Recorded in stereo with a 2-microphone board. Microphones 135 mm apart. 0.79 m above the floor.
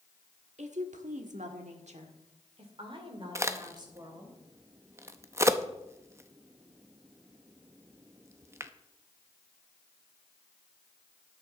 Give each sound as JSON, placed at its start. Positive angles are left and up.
{"t": 0.6, "sound": "a woman speaking", "side_deg": -70, "distance_m": 1.4}
{"t": 3.4, "sound": "a crack", "side_deg": -20, "distance_m": 0.6}